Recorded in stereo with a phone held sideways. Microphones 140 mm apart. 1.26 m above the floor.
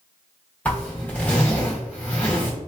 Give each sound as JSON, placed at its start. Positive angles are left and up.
{"t": 0.7, "sound": "a zipper", "side_deg": 10, "distance_m": 1.3}